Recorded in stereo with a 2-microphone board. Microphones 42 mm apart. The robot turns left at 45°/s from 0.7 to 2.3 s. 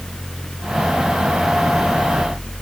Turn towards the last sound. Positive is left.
No sound to turn to.